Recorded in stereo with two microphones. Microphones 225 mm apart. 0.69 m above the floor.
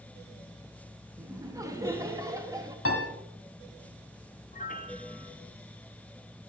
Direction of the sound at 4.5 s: 35° left (ahead or behind).